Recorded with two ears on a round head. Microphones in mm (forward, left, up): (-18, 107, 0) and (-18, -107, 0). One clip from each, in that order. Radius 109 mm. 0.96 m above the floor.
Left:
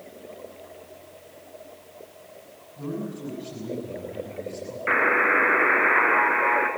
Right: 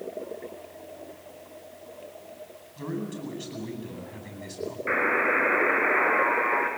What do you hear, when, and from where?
2.8 s a man speaking: 60° right (ahead or behind), 9 m
4.9 s a buzzer: 25° left (ahead or behind), 1.9 m